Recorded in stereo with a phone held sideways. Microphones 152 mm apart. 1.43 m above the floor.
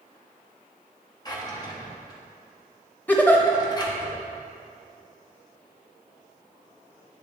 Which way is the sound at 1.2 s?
25° left (ahead or behind).